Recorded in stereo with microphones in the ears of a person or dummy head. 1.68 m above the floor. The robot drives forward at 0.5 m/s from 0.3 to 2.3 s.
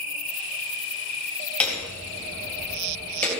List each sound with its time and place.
1.6 s hammering: 5° left (ahead or behind), 3.5 m